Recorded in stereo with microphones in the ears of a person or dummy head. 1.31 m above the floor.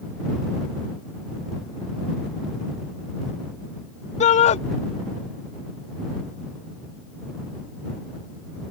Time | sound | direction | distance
4.2 | a shout | 40° left (ahead or behind) | ?